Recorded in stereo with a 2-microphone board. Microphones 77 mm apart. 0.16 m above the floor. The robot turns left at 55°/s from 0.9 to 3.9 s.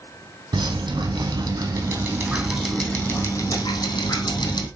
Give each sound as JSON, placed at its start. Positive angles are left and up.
{"t": 0.5, "sound": "dripping", "azimuth_deg": -80, "distance_m": 3.0}